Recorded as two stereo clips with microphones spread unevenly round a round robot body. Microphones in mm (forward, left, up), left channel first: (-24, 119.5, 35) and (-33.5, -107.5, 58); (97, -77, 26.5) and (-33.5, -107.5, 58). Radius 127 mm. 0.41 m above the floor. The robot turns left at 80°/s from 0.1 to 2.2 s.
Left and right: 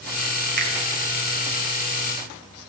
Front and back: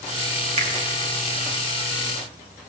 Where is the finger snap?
130° right, 2.5 m; by 0.7 s 140° right, 2.5 m.